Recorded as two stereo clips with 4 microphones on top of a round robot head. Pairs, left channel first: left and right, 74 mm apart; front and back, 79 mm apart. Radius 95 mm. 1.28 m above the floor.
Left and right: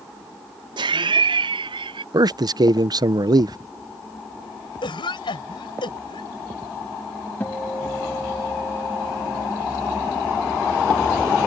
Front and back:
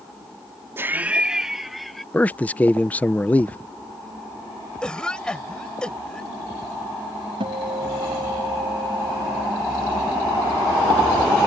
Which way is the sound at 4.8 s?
80° left.